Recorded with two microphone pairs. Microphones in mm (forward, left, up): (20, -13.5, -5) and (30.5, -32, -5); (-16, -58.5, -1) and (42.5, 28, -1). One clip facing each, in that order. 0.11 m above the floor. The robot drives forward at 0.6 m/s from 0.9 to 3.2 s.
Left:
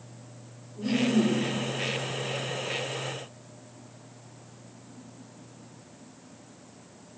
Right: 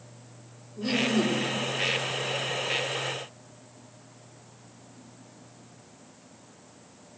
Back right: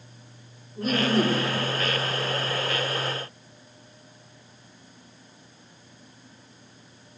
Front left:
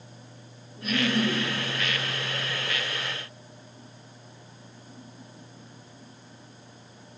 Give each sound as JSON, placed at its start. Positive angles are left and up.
{"t": 0.8, "sound": "laughter", "azimuth_deg": -80, "distance_m": 3.5}